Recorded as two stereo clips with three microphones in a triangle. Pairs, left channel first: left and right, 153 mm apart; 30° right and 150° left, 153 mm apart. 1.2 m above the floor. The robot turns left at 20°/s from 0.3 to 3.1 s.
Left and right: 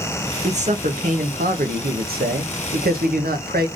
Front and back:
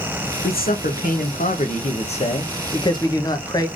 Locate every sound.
0.4 s a man speaking: 40° right, 1.0 m; by 3.7 s 95° right, 1.0 m